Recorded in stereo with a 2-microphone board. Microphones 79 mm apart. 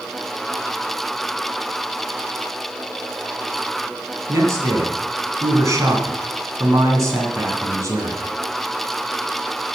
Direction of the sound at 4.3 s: 40° right (ahead or behind).